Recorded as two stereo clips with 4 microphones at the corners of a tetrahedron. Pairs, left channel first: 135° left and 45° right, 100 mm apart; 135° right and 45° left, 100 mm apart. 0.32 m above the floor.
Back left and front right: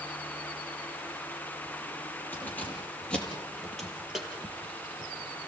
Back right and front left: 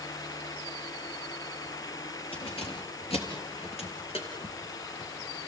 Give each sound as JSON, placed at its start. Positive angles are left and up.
{"t": 2.3, "sound": "keys jangling", "azimuth_deg": -155, "distance_m": 5.0}